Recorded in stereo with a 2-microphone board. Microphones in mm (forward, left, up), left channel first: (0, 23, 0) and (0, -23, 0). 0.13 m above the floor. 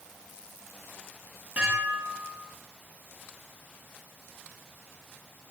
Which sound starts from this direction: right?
Dishes clattering, at 1.6 s.